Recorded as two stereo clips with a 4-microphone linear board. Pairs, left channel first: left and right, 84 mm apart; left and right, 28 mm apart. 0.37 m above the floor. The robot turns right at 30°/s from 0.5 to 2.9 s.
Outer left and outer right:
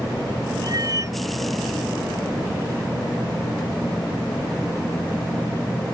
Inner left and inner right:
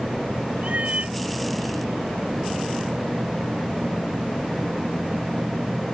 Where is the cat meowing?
55° right (ahead or behind); by 1.2 s 40° right (ahead or behind).